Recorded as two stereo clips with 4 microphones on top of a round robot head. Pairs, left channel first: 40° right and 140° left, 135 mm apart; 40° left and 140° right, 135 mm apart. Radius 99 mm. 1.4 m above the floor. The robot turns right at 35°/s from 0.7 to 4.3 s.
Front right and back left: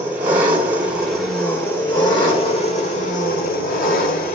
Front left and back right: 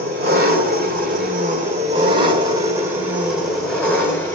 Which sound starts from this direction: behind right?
An engine running, at 0.0 s.